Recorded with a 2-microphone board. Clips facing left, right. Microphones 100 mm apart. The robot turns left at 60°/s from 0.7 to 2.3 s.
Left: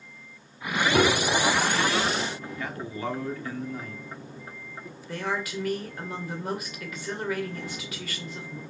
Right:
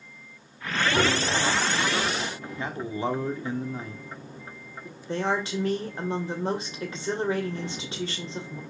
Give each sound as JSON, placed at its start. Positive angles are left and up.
{"t": 0.9, "sound": "a piano", "azimuth_deg": 115, "distance_m": 3.0}
{"t": 2.6, "sound": "a man speaking", "side_deg": -25, "distance_m": 1.3}
{"t": 5.1, "sound": "a woman speaking", "side_deg": -30, "distance_m": 2.0}